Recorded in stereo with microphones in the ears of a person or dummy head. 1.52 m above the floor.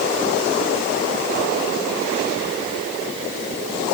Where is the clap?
I don't hear a clap.